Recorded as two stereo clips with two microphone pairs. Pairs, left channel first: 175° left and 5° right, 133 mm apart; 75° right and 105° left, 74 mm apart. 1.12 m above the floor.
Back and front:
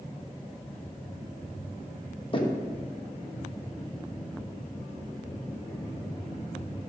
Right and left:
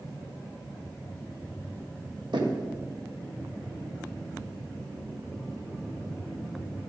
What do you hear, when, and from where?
2.3 s knocking: 125° left, 1.1 m